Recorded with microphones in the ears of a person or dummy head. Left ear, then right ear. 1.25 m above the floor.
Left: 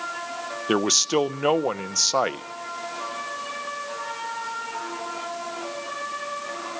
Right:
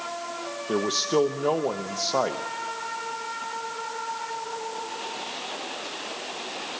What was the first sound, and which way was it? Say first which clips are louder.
A man speaking: left 3 dB; 70° left (ahead or behind).